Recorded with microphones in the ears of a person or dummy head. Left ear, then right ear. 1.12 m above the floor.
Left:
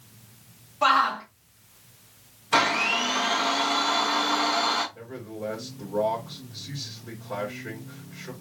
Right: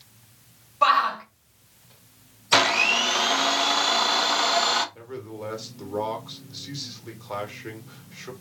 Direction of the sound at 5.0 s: 85° right.